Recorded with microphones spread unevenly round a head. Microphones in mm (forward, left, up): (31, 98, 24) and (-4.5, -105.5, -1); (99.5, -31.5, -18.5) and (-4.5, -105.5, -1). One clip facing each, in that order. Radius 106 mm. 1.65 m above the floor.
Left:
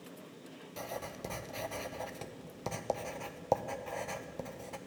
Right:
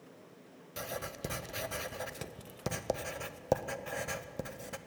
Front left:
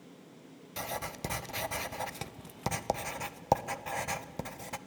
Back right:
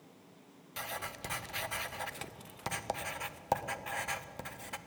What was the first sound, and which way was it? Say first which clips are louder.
Writing: right 1 dB, front left 5 dB; 25° right.